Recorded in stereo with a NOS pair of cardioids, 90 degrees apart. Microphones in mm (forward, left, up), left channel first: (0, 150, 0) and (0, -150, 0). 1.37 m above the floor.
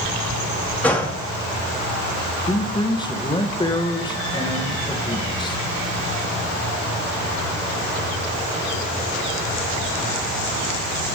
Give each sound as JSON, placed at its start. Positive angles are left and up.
{"t": 0.8, "sound": "a gunshot", "azimuth_deg": 5, "distance_m": 1.6}
{"t": 2.5, "sound": "a man speaking", "azimuth_deg": 15, "distance_m": 1.2}